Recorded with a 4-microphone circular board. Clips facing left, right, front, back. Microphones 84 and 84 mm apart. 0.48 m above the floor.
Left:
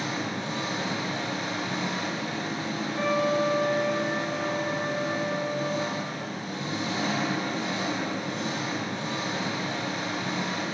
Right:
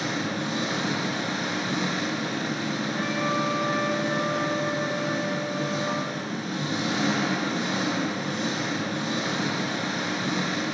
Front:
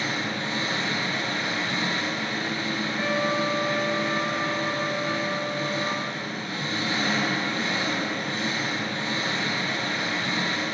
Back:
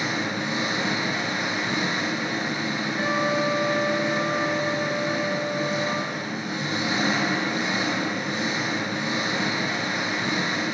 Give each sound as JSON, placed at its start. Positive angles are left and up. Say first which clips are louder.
{"t": 0.0, "sound": "an engine running", "louder": "right 2 dB, back 2 dB", "azimuth_deg": -105, "distance_m": 2.5}
{"t": 2.9, "sound": "a trumpet", "louder": "left 4 dB, back 2 dB", "azimuth_deg": -130, "distance_m": 4.0}